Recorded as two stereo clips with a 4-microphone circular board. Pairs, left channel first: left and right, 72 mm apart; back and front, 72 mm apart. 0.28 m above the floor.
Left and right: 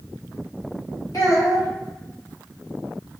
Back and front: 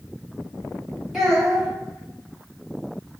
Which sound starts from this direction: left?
A child speaking, at 1.1 s.